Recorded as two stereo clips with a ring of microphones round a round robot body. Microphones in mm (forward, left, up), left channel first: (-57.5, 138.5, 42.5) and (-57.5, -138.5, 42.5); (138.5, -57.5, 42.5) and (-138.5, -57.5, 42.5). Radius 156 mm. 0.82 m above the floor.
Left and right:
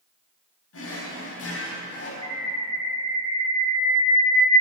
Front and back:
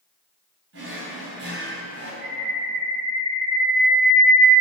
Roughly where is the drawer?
Behind left.